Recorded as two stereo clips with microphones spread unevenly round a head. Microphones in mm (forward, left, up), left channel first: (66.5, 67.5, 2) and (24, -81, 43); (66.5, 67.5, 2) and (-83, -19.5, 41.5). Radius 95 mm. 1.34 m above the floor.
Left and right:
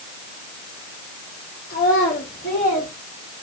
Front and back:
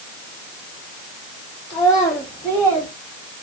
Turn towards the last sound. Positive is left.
turn(degrees=115)